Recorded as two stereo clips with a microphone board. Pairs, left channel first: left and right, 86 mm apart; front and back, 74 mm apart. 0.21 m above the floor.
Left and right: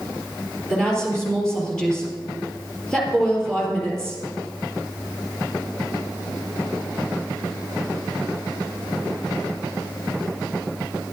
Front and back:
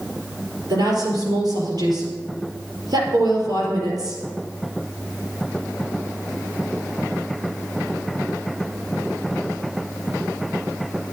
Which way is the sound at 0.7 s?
170° left.